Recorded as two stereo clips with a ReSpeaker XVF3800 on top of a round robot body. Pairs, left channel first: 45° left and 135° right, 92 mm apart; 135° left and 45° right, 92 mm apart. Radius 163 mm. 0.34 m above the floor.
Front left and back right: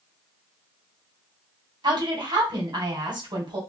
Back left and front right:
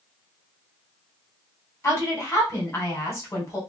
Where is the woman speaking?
165° right, 3 m.